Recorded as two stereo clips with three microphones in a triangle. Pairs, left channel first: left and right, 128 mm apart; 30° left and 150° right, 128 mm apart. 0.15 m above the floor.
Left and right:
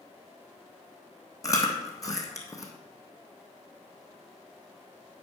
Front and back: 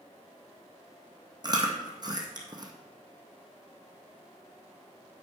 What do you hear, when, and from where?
1.4 s chewing: 155° left, 1.6 m